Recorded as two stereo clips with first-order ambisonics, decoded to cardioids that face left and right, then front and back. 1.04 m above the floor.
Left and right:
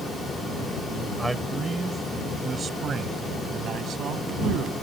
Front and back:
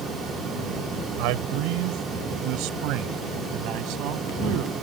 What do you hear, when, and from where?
1.2 s a man speaking: 175° right; by 4.7 s 145° right